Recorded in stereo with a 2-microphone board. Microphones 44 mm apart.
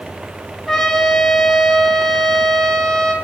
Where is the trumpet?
15° left (ahead or behind), 5.5 m.